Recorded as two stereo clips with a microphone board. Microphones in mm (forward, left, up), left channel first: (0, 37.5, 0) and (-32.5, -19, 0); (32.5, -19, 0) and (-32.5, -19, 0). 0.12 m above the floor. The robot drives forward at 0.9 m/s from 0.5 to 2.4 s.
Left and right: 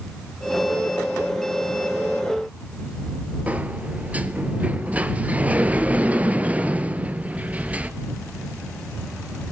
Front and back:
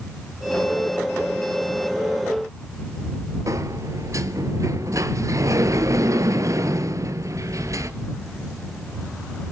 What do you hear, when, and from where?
3.5 s a sliding door: 175° left, 1.1 m